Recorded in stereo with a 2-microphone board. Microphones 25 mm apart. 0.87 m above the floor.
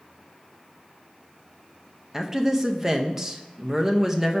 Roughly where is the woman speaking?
Centre.